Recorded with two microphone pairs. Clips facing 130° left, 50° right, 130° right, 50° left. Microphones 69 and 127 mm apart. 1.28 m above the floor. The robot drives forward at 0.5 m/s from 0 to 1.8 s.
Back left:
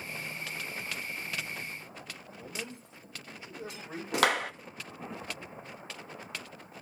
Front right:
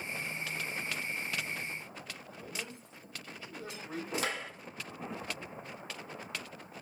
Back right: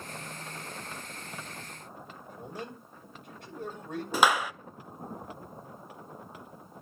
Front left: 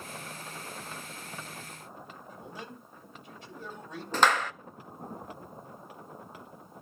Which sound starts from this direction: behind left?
A clap, at 4.1 s.